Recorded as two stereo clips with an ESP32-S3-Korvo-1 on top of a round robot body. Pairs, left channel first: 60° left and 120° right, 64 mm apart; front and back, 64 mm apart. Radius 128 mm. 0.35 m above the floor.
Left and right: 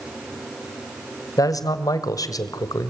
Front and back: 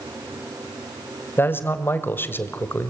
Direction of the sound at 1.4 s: 55° left.